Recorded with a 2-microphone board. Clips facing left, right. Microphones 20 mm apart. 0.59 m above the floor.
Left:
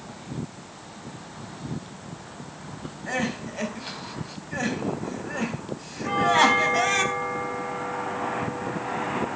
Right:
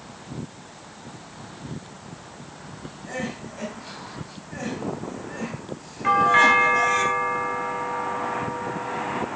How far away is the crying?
About 3 m.